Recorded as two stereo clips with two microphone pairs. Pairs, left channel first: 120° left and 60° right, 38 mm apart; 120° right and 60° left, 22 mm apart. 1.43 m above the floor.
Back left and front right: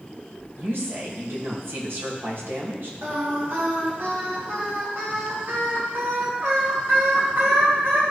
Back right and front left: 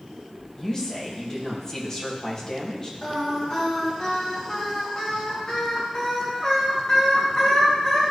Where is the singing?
65° right, 2 m.